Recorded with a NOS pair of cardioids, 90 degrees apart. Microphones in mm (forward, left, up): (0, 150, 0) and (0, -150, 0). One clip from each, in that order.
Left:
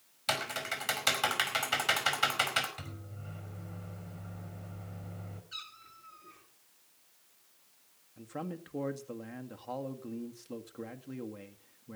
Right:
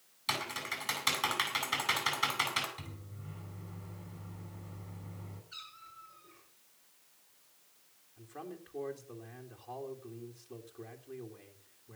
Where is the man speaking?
55° left, 2 m.